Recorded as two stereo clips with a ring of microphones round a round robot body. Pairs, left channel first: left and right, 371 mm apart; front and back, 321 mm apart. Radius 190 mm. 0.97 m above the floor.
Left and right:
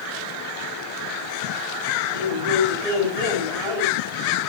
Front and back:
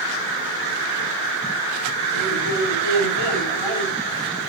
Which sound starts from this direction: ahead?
A man speaking, at 2.1 s.